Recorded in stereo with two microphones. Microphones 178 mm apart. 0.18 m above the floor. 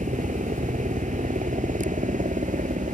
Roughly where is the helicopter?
Right.